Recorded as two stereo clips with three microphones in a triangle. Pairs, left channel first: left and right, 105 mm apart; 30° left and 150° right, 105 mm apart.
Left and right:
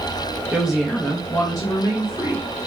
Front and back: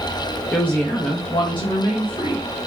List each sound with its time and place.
0.5 s a woman speaking: 35° right, 0.7 m; by 2.5 s 55° left, 1.6 m